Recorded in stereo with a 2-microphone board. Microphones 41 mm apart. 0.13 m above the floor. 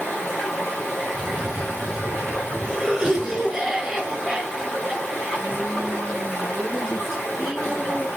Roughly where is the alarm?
No alarm in this recording.